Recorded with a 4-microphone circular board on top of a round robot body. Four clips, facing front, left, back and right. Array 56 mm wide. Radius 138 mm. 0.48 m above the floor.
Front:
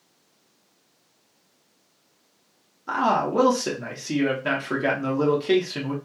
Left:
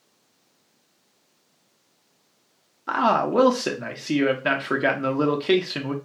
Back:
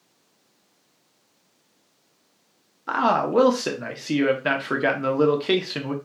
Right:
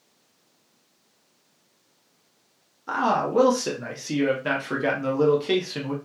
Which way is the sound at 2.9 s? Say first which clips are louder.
Left 2 dB, back 1 dB; 135° left.